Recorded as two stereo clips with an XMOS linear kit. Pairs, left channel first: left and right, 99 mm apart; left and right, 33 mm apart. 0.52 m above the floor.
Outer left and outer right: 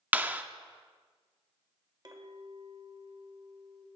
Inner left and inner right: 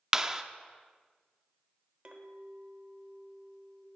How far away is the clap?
About 0.6 m.